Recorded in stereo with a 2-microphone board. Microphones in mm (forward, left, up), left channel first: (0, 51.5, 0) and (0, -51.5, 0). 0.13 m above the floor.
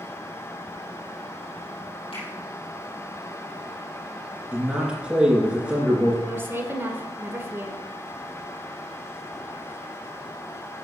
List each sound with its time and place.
2.1 s a finger snap: 70° left (ahead or behind), 4.5 m
4.5 s a man speaking: 10° right (ahead or behind), 2.5 m
6.2 s a woman speaking: 25° right (ahead or behind), 1.1 m